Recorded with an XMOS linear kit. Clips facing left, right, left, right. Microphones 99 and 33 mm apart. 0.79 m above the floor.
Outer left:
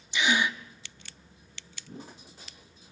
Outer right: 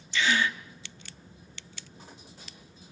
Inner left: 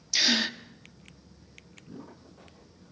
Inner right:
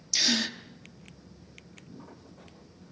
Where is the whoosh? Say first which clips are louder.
Outer left 9 dB, inner left 4 dB; 75° left (ahead or behind), 2 m.